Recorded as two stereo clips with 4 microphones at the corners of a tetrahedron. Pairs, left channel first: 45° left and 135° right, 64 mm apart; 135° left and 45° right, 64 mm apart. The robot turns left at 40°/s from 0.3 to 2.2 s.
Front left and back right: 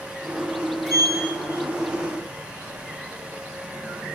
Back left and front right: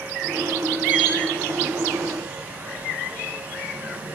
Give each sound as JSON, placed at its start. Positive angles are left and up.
{"t": 0.9, "sound": "a sliding door", "azimuth_deg": -115, "distance_m": 6.0}